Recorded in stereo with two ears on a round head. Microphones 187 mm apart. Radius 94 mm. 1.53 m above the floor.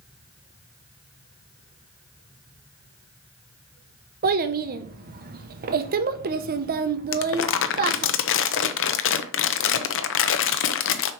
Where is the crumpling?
60° left (ahead or behind), 0.7 m.